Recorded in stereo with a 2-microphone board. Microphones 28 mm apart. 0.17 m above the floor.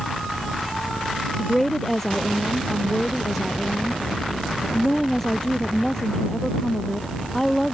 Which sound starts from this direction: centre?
A woman speaking, at 1.4 s.